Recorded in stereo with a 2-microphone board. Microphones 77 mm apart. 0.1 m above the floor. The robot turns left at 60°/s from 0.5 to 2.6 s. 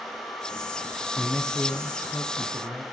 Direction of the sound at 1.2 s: Centre (ahead or behind).